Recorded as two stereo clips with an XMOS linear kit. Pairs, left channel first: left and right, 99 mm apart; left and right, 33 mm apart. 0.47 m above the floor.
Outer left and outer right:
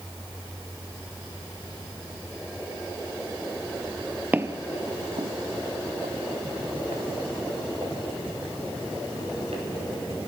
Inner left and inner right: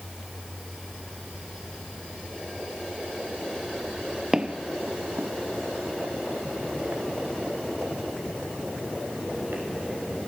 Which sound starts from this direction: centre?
Footsteps, at 4.3 s.